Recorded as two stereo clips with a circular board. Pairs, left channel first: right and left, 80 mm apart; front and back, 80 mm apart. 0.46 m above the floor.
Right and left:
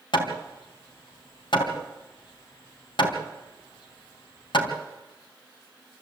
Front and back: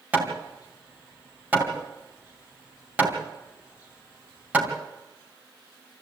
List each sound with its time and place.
0.1 s hammering: 110° right, 3.5 m